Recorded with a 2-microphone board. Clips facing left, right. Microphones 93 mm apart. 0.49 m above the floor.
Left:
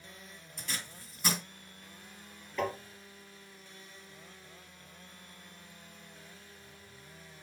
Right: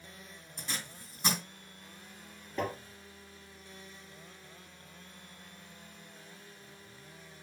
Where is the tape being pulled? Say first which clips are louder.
Even; 25° right (ahead or behind), 3 m.